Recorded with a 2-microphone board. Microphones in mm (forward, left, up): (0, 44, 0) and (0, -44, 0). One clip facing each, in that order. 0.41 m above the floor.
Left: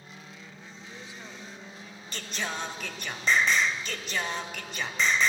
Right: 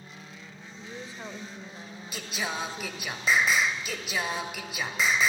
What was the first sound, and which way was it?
A woman speaking, 40° right (ahead or behind).